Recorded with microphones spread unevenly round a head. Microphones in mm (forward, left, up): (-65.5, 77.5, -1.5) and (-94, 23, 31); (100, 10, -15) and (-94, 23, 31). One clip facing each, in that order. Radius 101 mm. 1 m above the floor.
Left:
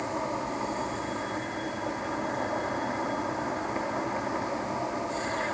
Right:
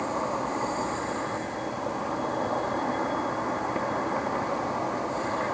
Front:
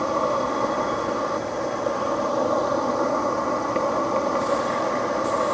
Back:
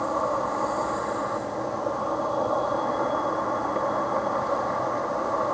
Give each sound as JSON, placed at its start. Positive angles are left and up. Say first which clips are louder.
{"t": 0.0, "sound": "an insect", "louder": "right 3 dB, front 3 dB", "azimuth_deg": -50}